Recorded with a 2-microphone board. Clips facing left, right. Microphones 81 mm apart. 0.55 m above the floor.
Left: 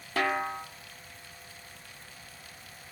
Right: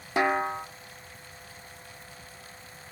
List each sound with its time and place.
0.2 s a snare drum: 20° right (ahead or behind), 0.7 m